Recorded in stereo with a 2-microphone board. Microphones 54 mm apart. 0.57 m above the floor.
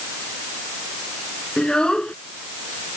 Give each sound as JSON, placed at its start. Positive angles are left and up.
{"t": 1.6, "sound": "a child speaking", "side_deg": 15}